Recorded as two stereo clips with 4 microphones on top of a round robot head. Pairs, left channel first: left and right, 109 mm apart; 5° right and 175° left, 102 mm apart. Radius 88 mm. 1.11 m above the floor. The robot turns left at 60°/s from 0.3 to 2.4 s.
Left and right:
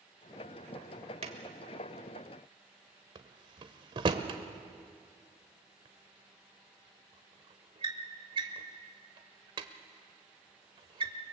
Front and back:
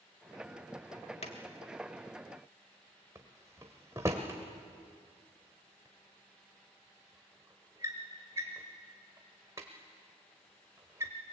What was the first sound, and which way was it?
A drawer, 45° right.